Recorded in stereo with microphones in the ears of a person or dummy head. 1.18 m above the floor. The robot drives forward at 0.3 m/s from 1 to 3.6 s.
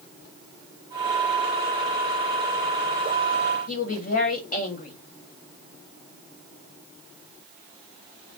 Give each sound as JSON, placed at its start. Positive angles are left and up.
{"t": 3.7, "sound": "a woman speaking", "side_deg": 45, "distance_m": 1.3}